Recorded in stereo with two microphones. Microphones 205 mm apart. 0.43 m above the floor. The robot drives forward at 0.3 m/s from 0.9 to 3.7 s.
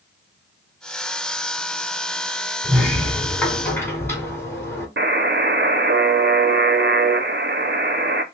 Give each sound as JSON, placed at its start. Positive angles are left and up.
{"t": 2.6, "sound": "a sliding door", "side_deg": 10, "distance_m": 2.0}
{"t": 5.0, "sound": "a buzzer", "side_deg": -60, "distance_m": 0.6}